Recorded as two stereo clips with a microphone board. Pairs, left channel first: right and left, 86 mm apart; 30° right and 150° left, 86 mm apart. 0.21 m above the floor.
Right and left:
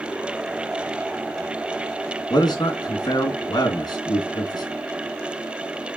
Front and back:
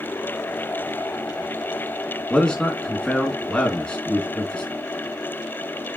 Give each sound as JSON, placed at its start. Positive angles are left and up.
{"t": 2.3, "sound": "a man speaking", "azimuth_deg": -110, "distance_m": 2.5}